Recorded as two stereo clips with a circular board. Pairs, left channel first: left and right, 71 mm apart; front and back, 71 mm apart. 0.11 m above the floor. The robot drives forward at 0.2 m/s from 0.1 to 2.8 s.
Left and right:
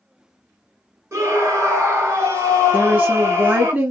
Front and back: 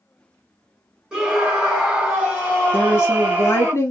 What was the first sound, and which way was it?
A scream, 105° right.